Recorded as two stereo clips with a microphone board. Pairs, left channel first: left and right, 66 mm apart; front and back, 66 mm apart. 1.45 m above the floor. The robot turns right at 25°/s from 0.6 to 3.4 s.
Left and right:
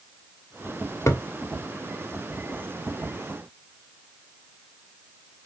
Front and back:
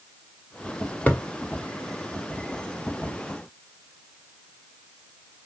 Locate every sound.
1.1 s a thud: 60° left, 1.4 m; by 1.2 s 65° left, 1.4 m